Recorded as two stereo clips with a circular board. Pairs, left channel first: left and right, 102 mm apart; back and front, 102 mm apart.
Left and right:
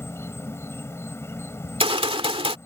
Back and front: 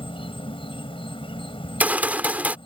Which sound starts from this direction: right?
A gunshot, at 1.6 s.